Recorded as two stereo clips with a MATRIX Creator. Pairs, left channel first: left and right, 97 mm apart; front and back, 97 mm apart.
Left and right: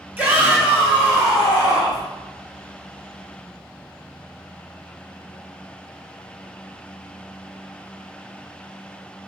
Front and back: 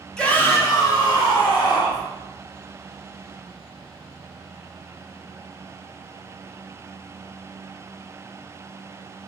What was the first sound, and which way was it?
A shout, 70° right.